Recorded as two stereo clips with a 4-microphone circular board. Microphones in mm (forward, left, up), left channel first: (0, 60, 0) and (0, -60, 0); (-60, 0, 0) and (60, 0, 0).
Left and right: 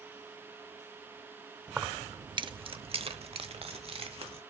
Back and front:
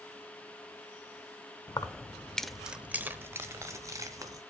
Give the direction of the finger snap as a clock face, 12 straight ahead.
No finger snap in this recording.